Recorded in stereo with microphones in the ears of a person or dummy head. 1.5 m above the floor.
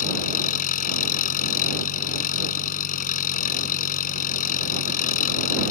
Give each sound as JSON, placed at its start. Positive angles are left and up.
{"t": 0.0, "sound": "an engine running", "side_deg": 45}